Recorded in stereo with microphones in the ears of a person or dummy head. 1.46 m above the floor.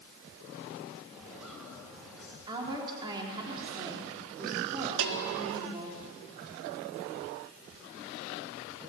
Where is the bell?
65° right (ahead or behind), 2.0 m.